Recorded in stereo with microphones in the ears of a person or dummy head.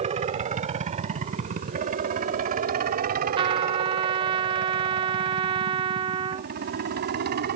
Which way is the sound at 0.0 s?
30° right (ahead or behind).